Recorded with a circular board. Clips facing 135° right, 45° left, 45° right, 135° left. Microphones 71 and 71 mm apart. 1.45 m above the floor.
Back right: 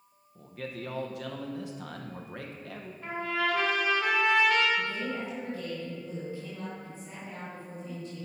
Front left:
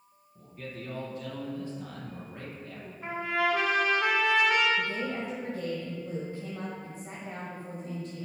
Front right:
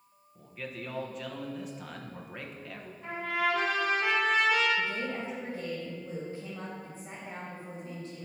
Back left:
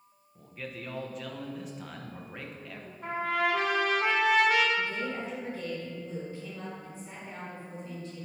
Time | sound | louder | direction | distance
0.3 | a man speaking | back right 3 dB, even | 135° right | 1.0 m
3.0 | a trumpet | front left 2 dB, back left 2 dB | 115° left | 3 m
4.8 | a woman speaking | front left 1 dB, even | 20° left | 1.9 m